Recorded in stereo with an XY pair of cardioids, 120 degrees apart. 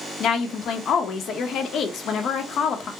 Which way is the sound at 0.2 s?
55° left.